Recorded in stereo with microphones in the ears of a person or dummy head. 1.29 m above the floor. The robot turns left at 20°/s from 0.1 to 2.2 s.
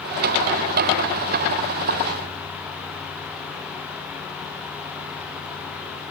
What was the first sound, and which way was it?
Only background noise.